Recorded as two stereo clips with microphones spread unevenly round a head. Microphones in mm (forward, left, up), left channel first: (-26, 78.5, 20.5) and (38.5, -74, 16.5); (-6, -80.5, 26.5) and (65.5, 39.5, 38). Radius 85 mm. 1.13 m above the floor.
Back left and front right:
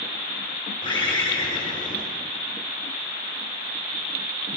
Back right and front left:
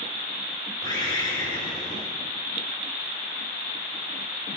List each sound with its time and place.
0.8 s a bird: 175° left, 7.5 m